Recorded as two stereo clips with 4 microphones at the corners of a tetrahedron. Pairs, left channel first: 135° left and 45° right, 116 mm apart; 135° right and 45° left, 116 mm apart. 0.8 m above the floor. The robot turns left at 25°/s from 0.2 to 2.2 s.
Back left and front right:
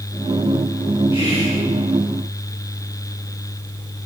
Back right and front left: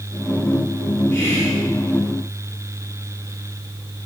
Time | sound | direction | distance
1.1 | whispering | 70° right | 1.4 m